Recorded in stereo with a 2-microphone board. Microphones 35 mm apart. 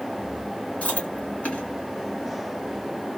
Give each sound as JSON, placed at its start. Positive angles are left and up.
{"t": 0.8, "sound": "chewing", "side_deg": 40, "distance_m": 2.5}